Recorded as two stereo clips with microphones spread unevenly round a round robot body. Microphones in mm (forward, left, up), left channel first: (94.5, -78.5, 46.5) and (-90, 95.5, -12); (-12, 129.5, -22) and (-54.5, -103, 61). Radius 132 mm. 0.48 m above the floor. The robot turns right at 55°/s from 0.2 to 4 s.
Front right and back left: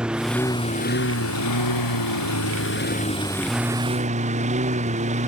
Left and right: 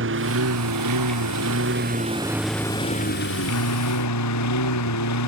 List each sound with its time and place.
0.0 s a lawn mower: 135° right; by 5.3 s 75° left